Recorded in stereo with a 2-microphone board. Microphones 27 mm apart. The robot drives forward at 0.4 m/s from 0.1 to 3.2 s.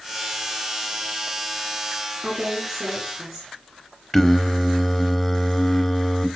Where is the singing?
15° left (ahead or behind), 1.4 m.